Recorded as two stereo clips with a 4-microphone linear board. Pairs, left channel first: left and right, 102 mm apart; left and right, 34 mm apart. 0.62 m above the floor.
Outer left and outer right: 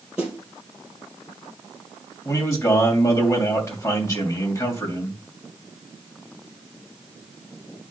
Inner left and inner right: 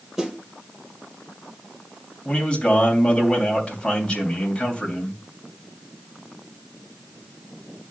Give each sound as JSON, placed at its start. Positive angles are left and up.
{"t": 0.2, "sound": "a snare drum", "side_deg": -10, "distance_m": 3.5}
{"t": 2.2, "sound": "a man speaking", "side_deg": 30, "distance_m": 3.0}